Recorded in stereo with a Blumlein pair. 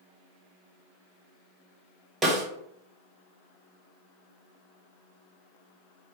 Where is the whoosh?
No whoosh in this recording.